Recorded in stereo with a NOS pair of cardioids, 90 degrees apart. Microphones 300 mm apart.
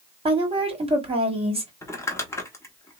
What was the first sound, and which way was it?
A woman speaking, 20° right.